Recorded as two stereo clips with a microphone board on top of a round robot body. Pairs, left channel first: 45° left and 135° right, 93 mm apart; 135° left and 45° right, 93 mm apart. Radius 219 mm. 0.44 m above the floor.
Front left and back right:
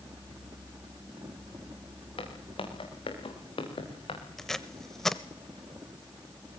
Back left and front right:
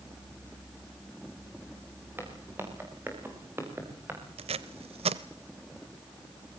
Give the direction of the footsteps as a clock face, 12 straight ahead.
11 o'clock.